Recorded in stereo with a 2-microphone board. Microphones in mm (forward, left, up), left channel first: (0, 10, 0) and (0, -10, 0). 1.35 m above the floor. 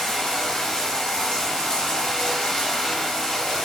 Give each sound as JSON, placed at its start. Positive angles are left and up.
{"t": 0.0, "sound": "running water", "side_deg": 35, "distance_m": 2.0}